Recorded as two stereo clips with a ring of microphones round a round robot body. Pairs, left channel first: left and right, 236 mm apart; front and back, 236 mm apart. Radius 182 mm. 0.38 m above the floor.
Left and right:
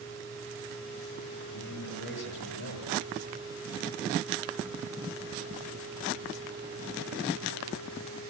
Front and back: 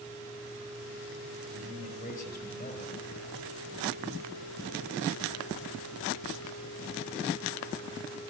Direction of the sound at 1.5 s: 55° left.